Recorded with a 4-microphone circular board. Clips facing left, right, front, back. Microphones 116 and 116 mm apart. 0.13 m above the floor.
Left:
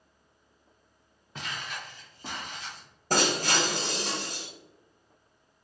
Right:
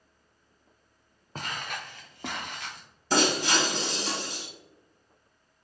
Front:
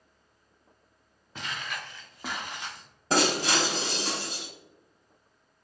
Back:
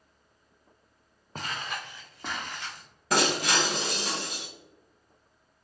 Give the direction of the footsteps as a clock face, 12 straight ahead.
5 o'clock.